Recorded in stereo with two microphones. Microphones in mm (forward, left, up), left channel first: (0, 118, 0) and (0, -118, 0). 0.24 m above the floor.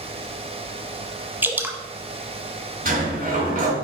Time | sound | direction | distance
1.4 | dripping | 10° right (ahead or behind) | 1.0 m
2.9 | a sliding door | 40° right (ahead or behind) | 3 m